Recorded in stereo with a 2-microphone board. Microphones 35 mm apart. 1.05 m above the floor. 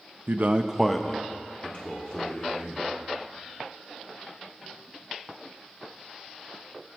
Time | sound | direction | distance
0.3 | a man speaking | 65° right (ahead or behind) | 0.7 m